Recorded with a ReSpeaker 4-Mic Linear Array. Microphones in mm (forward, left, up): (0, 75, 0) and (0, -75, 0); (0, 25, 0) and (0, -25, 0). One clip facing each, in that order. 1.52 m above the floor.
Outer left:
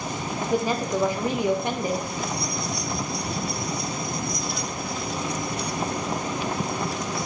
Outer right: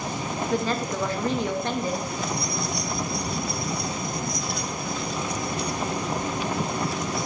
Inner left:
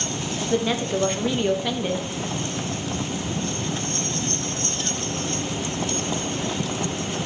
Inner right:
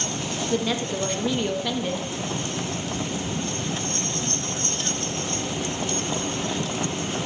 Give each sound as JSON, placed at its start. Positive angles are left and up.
{"t": 0.5, "sound": "a woman speaking", "side_deg": 15, "distance_m": 0.6}